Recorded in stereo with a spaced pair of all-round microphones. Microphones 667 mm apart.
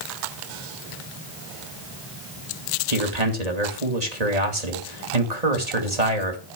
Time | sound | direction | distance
2.9 | a man speaking | 80° right | 2.5 m